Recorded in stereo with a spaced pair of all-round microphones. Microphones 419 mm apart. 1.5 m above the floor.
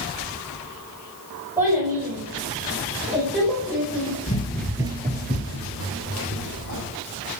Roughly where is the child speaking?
Centre.